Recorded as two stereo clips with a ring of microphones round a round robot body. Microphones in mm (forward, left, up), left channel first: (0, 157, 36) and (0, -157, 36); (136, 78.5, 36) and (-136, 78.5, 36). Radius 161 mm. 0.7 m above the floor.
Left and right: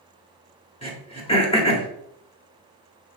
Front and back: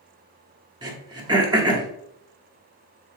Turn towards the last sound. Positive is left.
turn(degrees=130)